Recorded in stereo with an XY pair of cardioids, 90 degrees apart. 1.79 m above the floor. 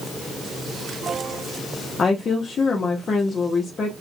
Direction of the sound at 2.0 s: 50° left.